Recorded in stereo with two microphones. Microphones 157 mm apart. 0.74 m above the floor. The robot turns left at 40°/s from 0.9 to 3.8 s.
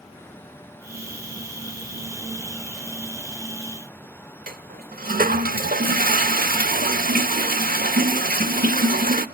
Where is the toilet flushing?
70° right (ahead or behind), 0.8 m.